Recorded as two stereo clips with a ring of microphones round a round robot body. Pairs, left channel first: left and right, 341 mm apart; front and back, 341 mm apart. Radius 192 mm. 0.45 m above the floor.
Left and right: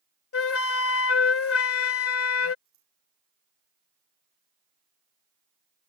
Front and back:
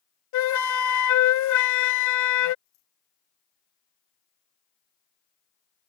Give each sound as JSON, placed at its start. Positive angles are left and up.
{"t": 0.3, "sound": "a flute", "azimuth_deg": 40}
{"t": 2.6, "sound": "scissors", "azimuth_deg": -50}